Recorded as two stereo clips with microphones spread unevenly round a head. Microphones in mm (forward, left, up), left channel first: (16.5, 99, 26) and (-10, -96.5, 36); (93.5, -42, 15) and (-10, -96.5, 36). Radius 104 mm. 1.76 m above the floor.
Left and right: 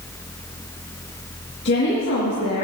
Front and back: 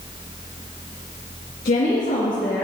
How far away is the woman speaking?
About 2 m.